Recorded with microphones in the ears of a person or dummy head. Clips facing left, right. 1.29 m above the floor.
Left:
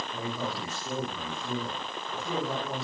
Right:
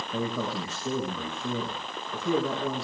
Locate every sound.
0.1 s a man speaking: 65° right (ahead or behind), 5.5 m